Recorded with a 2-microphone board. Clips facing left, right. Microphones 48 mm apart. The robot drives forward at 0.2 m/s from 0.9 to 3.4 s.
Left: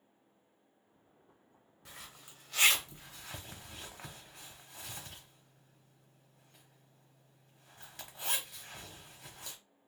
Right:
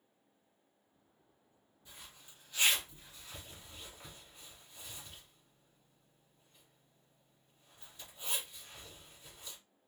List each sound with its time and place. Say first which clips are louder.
1.9 s a zipper: left 4 dB; 80° left, 0.8 m; by 9.6 s 75° left (ahead or behind), 0.8 m